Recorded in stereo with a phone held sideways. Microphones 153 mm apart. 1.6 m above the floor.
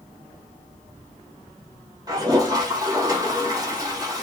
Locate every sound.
2.1 s a toilet flushing: 25° right (ahead or behind), 1.0 m